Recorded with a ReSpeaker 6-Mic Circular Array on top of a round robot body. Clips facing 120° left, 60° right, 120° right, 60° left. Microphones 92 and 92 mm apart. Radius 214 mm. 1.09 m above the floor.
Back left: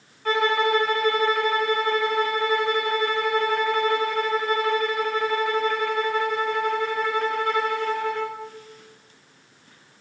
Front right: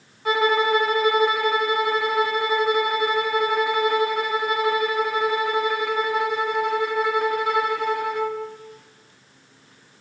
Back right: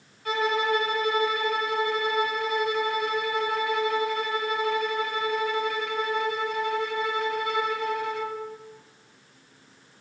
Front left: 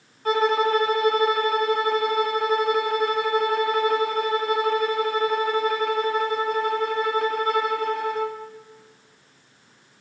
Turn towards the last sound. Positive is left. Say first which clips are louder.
# front right 2 dB, front left 5 dB
turn(degrees=15)